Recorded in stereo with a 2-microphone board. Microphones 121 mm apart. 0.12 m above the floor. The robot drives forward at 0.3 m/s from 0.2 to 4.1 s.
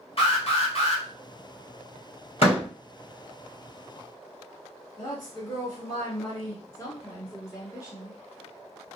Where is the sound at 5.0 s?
35° left (ahead or behind), 2.0 m.